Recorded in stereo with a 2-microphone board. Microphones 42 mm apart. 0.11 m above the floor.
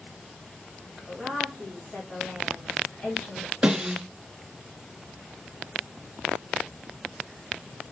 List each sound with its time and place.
1.0 s a woman speaking: 40° left (ahead or behind), 2.5 m
3.6 s a snare drum: 20° right (ahead or behind), 1.2 m